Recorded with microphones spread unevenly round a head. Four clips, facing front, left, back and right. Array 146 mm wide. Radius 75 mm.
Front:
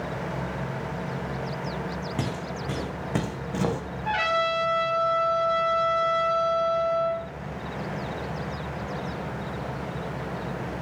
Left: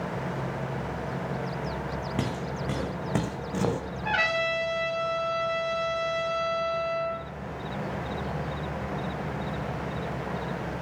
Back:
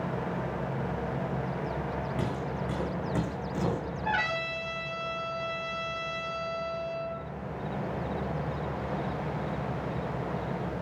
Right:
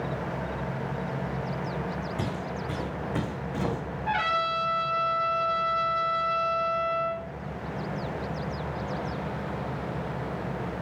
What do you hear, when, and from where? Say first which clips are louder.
2.2 s footsteps: left 1 dB, front 1 dB; 60° left, 3.5 m; by 3.8 s 35° left, 3 m
4.0 s a trumpet: right 1 dB, front 7 dB; 80° left, 4.5 m